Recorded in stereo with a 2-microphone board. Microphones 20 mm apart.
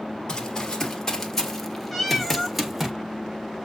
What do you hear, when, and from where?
0.3 s running footsteps: 25° left (ahead or behind), 1.8 m; by 2.9 s 20° right (ahead or behind), 1.5 m
1.9 s a cat meowing: centre (ahead or behind), 1.3 m